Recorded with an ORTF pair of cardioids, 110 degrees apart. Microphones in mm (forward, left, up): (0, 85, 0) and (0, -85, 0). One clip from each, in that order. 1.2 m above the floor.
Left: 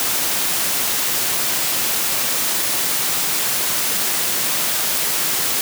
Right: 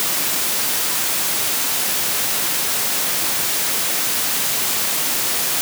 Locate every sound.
Only background noise.